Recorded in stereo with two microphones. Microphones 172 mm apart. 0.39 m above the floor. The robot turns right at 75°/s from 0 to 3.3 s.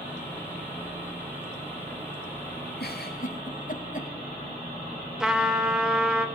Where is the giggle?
70° left (ahead or behind), 1.5 m; by 4.1 s 50° left (ahead or behind), 1.5 m.